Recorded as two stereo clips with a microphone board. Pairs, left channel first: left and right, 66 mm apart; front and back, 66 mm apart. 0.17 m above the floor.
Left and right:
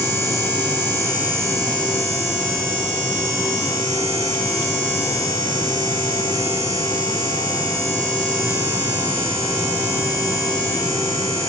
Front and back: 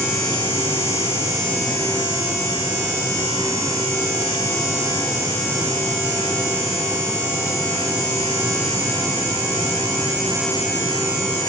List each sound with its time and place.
Only background noise.